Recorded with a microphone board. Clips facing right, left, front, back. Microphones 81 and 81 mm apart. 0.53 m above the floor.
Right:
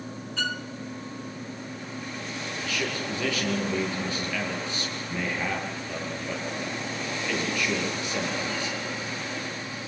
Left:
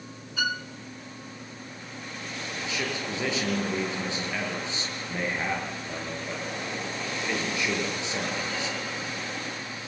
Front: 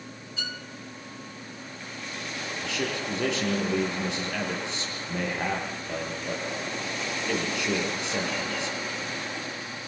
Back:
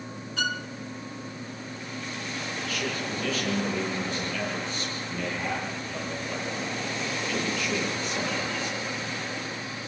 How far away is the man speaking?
About 9.5 m.